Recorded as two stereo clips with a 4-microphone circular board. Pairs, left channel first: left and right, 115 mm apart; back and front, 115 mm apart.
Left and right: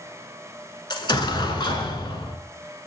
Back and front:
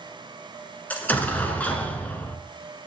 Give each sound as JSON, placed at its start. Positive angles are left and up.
{"t": 0.9, "sound": "an explosion", "azimuth_deg": 110, "distance_m": 1.0}